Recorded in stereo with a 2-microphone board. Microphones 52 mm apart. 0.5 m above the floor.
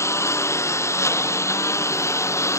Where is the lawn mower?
65° left (ahead or behind).